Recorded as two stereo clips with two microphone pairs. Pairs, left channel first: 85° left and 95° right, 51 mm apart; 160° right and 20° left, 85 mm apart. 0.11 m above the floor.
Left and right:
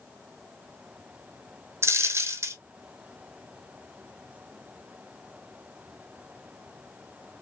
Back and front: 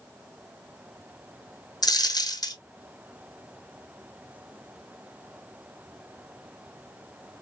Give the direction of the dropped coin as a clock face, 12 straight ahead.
4 o'clock.